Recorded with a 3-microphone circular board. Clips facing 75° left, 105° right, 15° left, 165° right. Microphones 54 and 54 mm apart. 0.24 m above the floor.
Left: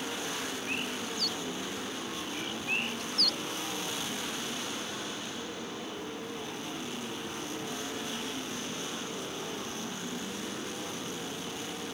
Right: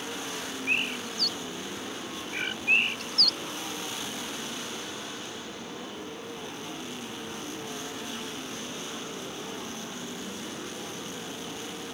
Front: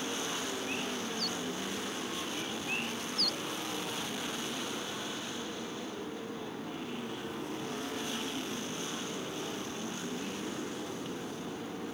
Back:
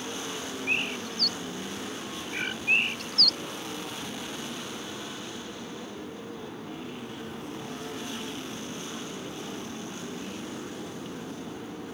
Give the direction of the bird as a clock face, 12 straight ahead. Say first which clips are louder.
Right 5 dB, back 5 dB; 5 o'clock.